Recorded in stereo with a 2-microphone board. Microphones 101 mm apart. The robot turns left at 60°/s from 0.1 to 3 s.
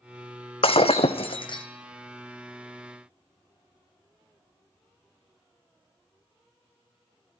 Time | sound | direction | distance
0.6 | breaking glass | 105° left | 1.0 m